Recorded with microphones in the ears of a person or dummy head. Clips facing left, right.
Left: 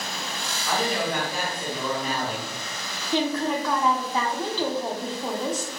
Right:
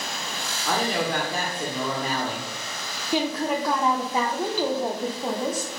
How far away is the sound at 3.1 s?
About 0.5 m.